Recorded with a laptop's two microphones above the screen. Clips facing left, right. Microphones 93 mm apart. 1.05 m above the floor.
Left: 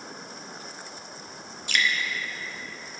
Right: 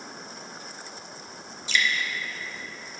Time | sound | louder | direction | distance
1.7 | dripping | even | 55° left (ahead or behind) | 0.7 m